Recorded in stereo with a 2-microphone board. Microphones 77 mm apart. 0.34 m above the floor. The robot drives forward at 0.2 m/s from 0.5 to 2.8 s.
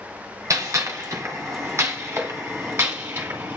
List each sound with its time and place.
0.5 s a gunshot: 45° right (ahead or behind), 1.1 m; by 3.6 s 35° right (ahead or behind), 1.5 m